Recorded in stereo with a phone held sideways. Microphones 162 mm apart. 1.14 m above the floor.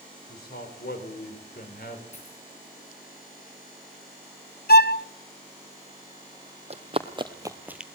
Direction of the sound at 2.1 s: 45° left (ahead or behind).